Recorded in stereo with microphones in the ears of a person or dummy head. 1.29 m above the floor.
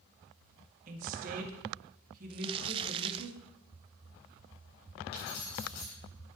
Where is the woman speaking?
45° right (ahead or behind), 2 m.